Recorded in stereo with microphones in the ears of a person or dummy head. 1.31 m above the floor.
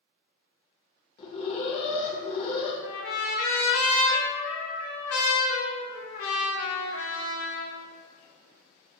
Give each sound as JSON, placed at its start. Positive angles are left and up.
{"t": 1.2, "sound": "an alarm", "side_deg": 35, "distance_m": 0.9}
{"t": 2.8, "sound": "a trumpet", "side_deg": 75, "distance_m": 1.1}